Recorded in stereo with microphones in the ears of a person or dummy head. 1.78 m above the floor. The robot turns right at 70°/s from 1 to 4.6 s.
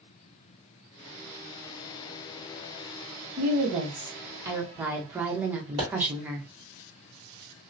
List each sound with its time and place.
3.4 s a woman speaking: 110° right, 0.8 m; by 6.5 s 20° right, 0.8 m
5.8 s a pop: 20° right (ahead or behind), 1.3 m